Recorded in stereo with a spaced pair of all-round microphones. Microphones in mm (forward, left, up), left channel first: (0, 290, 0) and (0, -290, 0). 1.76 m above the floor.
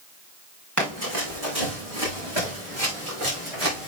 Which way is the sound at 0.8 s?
30° right (ahead or behind).